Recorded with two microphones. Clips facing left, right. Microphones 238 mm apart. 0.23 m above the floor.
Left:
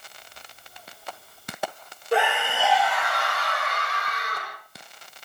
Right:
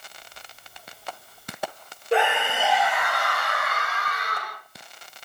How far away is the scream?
About 6.5 m.